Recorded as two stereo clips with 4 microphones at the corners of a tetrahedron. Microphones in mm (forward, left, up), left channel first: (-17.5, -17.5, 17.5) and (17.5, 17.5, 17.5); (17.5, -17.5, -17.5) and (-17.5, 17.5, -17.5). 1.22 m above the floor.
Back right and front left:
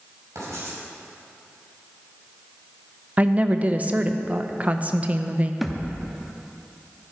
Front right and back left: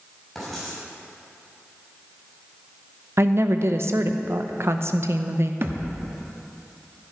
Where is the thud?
135° left, 0.8 m.